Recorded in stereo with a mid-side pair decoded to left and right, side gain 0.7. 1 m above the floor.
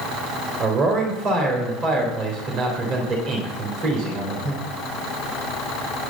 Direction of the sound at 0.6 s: 50° right.